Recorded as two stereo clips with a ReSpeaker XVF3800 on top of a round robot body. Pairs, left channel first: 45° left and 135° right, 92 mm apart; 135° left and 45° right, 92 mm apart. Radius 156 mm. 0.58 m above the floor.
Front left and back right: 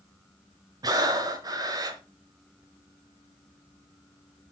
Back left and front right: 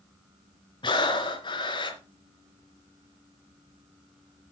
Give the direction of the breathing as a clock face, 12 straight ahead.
6 o'clock.